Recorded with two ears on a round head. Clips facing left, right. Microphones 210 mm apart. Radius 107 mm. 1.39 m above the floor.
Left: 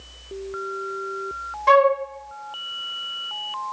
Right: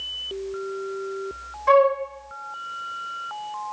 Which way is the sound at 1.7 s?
45° left (ahead or behind).